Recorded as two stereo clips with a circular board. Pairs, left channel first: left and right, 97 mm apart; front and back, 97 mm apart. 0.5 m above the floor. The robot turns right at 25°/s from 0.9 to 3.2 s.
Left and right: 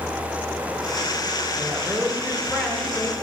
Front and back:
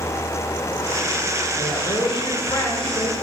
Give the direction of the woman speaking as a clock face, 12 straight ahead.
1 o'clock.